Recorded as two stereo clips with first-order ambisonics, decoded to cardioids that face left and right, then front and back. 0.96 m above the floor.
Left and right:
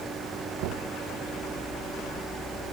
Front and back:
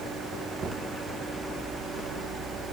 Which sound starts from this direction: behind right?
Knocking, at 0.6 s.